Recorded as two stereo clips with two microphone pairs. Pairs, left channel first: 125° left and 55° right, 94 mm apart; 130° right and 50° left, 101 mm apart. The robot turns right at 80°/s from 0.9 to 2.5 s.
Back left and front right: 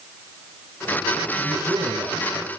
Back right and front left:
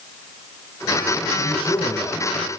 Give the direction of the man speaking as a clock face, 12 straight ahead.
4 o'clock.